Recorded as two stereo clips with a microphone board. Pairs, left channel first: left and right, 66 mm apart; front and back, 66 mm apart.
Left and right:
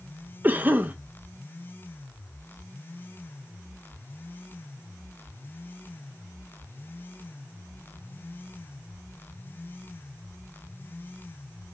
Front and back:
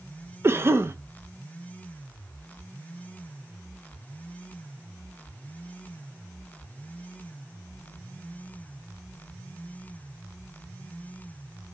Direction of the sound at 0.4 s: 145° right.